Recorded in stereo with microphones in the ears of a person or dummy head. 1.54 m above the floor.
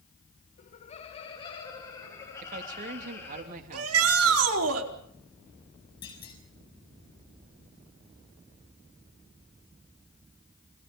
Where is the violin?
I don't hear a violin.